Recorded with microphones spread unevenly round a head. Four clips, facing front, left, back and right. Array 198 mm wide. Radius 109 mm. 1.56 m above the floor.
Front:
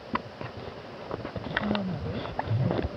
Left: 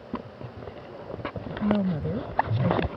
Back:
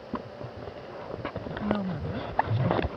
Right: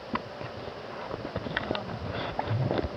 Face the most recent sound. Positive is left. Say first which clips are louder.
# left 8 dB, back 2 dB
turn(degrees=95)